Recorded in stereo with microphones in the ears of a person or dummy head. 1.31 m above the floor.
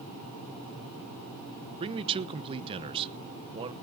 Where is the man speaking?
35° right (ahead or behind), 0.9 m.